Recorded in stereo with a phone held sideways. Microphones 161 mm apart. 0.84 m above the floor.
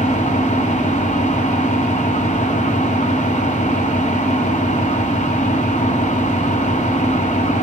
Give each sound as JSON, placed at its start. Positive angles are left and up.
{"t": 0.0, "sound": "an engine running", "side_deg": 50, "distance_m": 1.3}